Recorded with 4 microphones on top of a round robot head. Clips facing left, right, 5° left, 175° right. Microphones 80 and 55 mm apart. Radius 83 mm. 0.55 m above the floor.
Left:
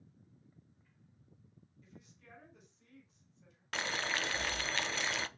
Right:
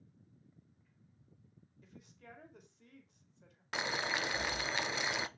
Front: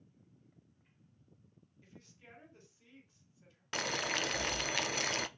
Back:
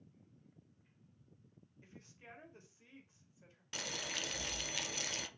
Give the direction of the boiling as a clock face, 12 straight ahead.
1 o'clock.